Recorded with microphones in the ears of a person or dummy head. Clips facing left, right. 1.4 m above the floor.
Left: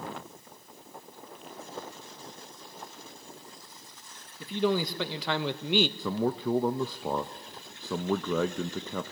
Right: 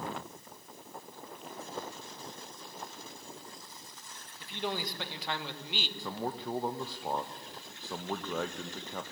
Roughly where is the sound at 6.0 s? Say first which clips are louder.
Left 8 dB; left.